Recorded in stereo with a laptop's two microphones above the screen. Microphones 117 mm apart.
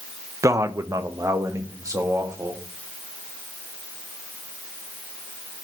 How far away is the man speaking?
About 0.6 m.